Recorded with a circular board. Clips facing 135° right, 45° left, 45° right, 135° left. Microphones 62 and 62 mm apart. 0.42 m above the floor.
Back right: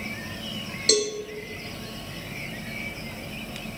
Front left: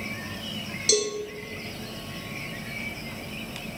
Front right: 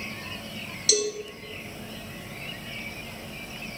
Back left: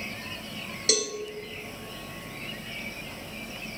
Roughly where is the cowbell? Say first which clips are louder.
Back right 2 dB, front right 3 dB; behind.